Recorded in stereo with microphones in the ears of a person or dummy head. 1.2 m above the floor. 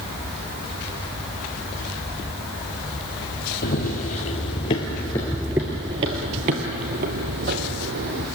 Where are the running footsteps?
45° left (ahead or behind), 1.8 m; by 8.3 s 60° right (ahead or behind), 2.5 m.